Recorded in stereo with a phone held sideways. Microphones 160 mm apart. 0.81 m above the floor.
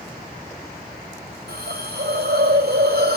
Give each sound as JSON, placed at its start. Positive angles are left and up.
{"t": 1.5, "sound": "a hiss", "side_deg": -80, "distance_m": 3.5}